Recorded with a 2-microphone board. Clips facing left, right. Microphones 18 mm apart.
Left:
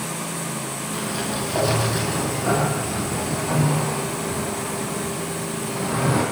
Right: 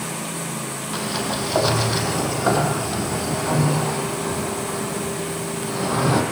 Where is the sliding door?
40° right (ahead or behind), 4.5 m.